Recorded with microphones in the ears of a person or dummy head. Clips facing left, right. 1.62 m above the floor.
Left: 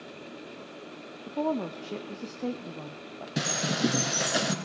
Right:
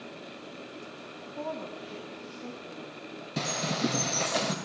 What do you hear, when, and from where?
1.3 s a woman speaking: 60° left (ahead or behind), 0.5 m
3.4 s a bird: 10° left (ahead or behind), 0.6 m